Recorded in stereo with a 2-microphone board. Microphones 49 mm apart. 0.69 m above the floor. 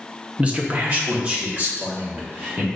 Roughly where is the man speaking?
Right.